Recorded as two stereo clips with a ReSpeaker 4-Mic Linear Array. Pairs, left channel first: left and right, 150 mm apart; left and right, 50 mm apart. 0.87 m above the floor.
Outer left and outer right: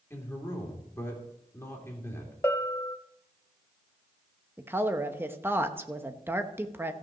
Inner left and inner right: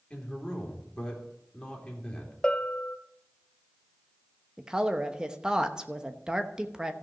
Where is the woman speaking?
15° right (ahead or behind), 0.9 m.